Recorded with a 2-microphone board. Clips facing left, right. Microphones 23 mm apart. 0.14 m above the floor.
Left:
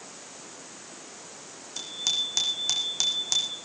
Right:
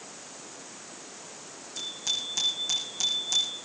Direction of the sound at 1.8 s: 55° left (ahead or behind).